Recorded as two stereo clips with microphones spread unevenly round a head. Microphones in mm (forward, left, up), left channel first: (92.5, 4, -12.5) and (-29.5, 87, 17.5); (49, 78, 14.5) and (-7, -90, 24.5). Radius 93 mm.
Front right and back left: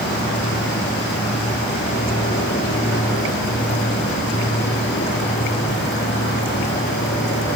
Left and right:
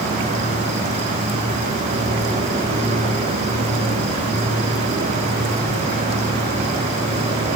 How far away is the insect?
About 4 m.